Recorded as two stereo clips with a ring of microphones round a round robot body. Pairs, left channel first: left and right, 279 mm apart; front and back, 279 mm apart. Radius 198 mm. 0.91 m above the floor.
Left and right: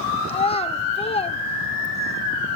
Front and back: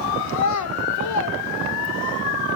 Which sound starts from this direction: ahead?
A child speaking, at 0.3 s.